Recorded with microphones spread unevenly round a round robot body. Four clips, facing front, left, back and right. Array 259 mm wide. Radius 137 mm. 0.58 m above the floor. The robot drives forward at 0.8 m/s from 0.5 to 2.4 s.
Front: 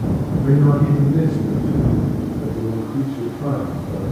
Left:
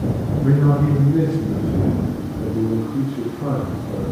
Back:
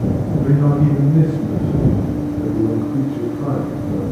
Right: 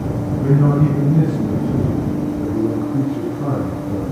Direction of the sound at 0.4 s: 105° right.